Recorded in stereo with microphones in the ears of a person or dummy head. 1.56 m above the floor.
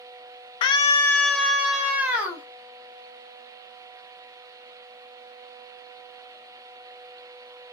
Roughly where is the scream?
Left.